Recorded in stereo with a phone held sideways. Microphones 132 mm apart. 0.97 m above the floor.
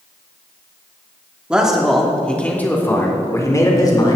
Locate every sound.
1.5 s a man speaking: 5° right (ahead or behind), 2.5 m; by 4.2 s 30° left (ahead or behind), 3.5 m